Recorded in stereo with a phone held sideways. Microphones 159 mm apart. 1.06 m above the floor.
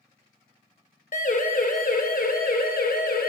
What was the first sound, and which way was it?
A siren, 55° left (ahead or behind).